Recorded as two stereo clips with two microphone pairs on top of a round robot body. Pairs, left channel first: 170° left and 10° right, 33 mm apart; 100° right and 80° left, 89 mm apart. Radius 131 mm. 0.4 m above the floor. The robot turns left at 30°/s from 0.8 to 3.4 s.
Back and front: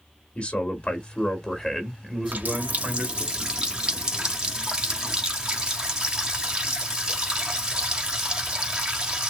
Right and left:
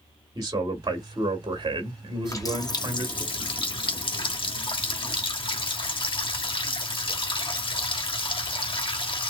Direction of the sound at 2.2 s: 45° right.